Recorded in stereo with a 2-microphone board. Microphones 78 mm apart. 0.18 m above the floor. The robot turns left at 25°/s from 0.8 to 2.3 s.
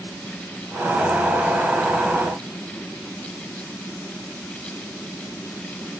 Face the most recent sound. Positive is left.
No sound to turn to.